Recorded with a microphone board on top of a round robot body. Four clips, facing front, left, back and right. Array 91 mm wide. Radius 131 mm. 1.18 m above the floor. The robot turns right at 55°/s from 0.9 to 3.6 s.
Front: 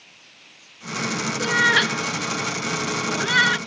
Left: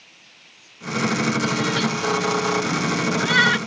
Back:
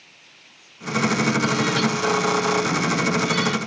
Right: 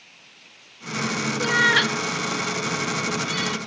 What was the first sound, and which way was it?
A cat meowing, 55° right.